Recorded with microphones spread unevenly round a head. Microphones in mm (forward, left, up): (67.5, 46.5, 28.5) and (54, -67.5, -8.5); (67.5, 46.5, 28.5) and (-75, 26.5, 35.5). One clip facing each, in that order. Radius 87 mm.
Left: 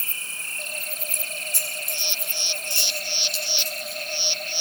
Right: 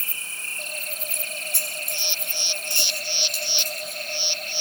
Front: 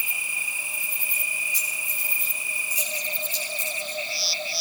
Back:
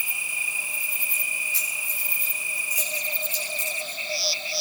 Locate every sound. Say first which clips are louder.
1.1 s keys jangling: even, front 1 dB; 75° right, 4.5 m; by 4.0 s 50° right, 8 m